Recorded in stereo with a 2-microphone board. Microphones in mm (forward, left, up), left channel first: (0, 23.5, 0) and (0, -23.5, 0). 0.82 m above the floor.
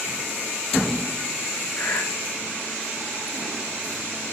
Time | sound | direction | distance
1.8 | breathing | 50° left (ahead or behind) | 2 m